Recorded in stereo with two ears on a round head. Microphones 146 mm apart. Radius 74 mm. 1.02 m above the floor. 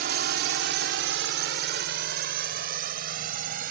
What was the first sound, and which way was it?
A drone, 65° right (ahead or behind).